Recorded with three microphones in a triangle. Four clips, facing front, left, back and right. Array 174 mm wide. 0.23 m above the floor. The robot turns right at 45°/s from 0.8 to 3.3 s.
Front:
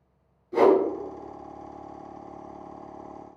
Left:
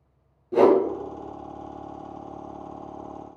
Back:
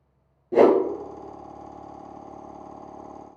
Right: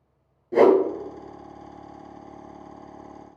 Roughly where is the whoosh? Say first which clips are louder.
Right 1 dB, back 2 dB; behind.